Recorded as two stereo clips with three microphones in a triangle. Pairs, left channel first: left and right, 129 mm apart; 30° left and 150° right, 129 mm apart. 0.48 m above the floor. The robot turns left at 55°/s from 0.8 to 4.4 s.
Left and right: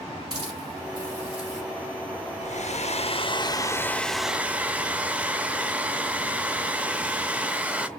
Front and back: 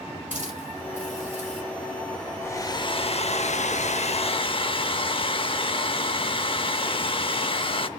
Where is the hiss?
140° right, 4.5 m; by 1.6 s 175° left, 4.5 m.